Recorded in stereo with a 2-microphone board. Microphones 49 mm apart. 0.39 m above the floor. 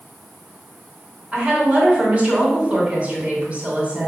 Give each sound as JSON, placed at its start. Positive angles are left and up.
{"t": 1.3, "sound": "a woman speaking", "side_deg": -25, "distance_m": 2.5}